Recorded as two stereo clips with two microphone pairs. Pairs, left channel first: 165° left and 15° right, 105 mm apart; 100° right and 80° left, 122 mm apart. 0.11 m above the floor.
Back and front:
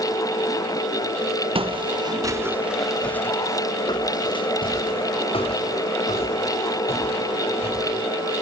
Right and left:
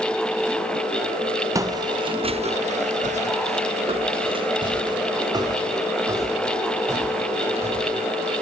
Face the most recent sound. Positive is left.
turn(degrees=145)